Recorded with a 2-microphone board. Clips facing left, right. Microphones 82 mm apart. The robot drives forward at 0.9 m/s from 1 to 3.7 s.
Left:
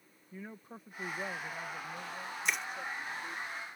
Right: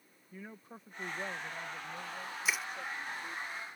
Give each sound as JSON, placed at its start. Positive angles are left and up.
{"t": 0.3, "sound": "a man speaking", "side_deg": 5}
{"t": 2.5, "sound": "crushing", "side_deg": -5}